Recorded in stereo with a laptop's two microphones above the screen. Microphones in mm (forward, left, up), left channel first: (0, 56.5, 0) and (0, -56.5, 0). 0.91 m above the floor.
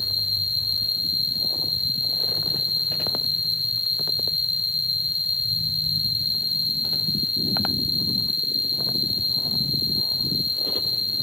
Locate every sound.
0.0 s an insect: 50° right (ahead or behind)